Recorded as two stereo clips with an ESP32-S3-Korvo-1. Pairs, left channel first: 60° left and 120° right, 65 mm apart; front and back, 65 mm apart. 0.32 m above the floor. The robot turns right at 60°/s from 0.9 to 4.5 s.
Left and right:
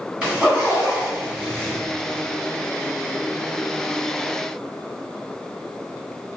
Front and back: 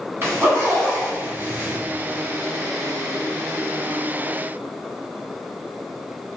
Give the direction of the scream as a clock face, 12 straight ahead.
No scream in this recording.